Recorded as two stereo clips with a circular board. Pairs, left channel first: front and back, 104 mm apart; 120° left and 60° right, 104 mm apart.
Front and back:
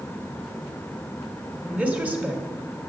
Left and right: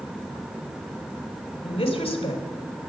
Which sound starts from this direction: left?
A woman speaking, at 1.6 s.